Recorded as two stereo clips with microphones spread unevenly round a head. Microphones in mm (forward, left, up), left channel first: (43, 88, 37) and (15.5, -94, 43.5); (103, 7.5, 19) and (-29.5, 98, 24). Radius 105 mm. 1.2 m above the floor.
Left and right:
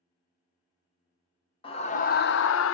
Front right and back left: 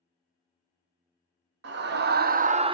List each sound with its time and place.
1.6 s a scream: 145° left, 0.7 m; by 2.8 s 85° left, 0.5 m